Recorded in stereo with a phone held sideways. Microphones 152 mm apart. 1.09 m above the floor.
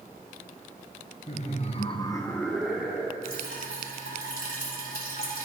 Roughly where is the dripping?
Left.